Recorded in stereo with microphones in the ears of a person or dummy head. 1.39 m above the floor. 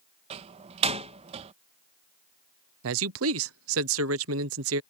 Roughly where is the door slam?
Right.